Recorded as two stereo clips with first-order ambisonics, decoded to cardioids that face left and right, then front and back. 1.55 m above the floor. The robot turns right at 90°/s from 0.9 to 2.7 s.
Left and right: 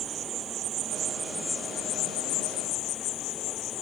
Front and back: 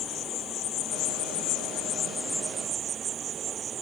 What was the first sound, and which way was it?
An insect, 45° right.